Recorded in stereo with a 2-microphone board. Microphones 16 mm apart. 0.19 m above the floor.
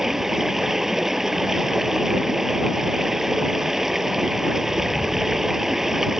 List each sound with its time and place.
0.0 s running water: 25° right (ahead or behind)